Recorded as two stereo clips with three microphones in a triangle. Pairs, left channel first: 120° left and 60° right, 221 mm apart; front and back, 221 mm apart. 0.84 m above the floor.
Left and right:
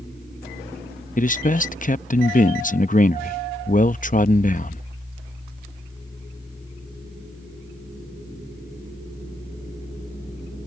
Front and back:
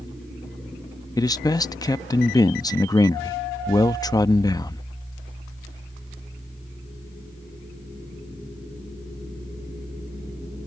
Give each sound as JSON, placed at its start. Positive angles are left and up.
{"t": 1.2, "sound": "a man speaking", "azimuth_deg": 70}